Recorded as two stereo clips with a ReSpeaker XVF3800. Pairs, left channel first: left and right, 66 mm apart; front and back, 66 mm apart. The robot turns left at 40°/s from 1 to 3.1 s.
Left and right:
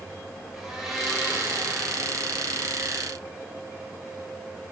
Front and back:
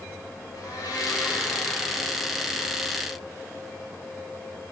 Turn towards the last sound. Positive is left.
turn(degrees=-90)